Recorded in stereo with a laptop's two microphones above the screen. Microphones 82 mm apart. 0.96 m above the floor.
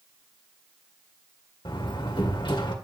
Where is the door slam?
80° left, 2 m.